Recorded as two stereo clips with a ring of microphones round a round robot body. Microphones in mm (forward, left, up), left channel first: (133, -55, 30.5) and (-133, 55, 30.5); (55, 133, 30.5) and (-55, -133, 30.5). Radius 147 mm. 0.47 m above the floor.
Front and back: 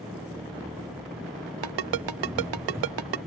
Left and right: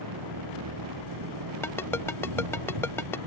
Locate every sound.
0.0 s an engine running: 120° right
1.6 s a ringtone: 150° left